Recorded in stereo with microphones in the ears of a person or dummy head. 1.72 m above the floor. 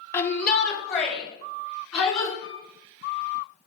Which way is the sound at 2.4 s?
80° right.